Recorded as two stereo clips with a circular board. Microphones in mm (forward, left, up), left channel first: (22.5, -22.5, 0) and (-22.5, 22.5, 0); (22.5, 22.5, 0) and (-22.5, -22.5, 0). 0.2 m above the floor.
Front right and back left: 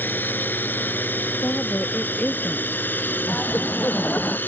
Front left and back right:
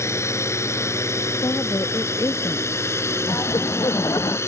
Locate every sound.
0.0 s a drone: 10° left
1.4 s a woman speaking: 20° left
3.3 s laughter: 20° left